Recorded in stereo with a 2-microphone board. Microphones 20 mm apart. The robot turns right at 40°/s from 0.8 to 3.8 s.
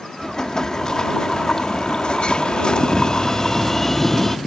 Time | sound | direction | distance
0.2 | an explosion | 40° left | ?